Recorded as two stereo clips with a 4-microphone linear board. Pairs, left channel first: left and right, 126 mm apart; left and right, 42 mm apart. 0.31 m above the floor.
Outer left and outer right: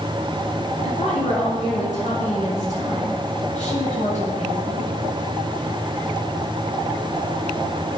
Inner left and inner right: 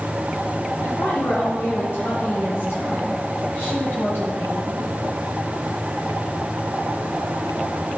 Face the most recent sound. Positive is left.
turn(degrees=65)  # may be behind; listen again after turning